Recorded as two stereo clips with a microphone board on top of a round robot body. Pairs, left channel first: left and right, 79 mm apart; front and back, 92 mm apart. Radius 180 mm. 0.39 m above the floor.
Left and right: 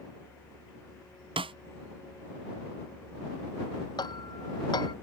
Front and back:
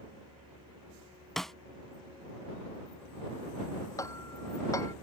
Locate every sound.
1.4 s a snare drum: 85° right
4.0 s hammering: 55° left